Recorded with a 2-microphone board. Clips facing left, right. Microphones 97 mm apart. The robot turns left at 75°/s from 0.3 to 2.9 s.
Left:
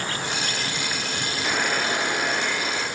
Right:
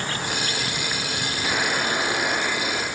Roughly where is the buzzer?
Ahead.